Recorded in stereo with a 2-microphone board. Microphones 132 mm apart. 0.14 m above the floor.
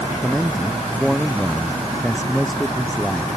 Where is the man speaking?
Centre (ahead or behind).